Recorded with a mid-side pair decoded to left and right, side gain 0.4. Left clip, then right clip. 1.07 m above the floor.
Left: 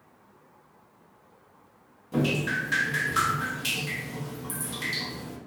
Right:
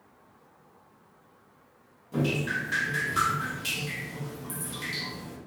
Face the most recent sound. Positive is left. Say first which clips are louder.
# left 2 dB
turn(degrees=35)